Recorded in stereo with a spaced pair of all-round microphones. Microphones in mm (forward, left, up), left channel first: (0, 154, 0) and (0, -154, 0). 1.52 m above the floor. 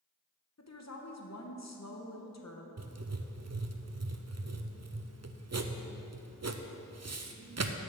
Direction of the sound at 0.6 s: 55° left (ahead or behind).